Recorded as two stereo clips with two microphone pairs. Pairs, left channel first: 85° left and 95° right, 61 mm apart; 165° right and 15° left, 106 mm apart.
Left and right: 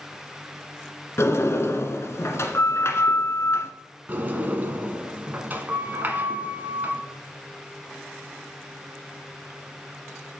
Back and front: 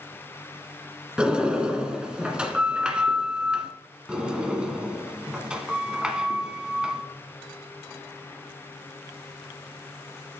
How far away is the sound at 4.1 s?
About 1.3 m.